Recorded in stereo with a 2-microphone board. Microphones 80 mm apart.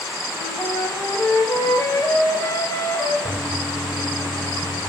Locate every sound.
0.3 s a flute: 35° left (ahead or behind), 2.5 m
3.2 s a toilet flushing: 45° left (ahead or behind), 4.5 m